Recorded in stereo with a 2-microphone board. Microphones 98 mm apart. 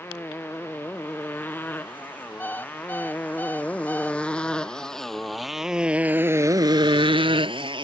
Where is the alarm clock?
20° left (ahead or behind).